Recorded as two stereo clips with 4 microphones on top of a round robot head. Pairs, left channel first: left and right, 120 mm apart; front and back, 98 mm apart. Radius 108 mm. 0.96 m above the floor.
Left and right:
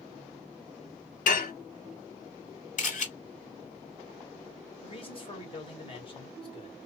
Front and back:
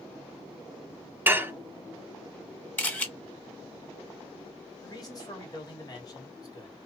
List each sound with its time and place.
1.3 s dishes clattering: 110° left, 0.7 m
2.8 s a camera shutter: 75° left, 2 m
4.8 s a man speaking: 50° left, 1.8 m